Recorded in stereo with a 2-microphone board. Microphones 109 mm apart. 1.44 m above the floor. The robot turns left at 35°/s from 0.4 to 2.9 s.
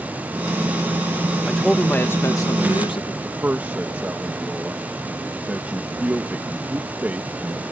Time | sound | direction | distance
1.5 | a man speaking | straight behind | ?
3.2 | a man speaking | 15° right (ahead or behind) | ?